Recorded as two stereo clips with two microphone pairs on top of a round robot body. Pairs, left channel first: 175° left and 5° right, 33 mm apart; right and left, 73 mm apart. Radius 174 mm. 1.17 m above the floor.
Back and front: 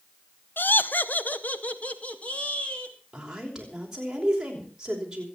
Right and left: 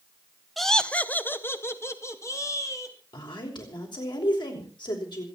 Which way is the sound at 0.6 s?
Straight behind.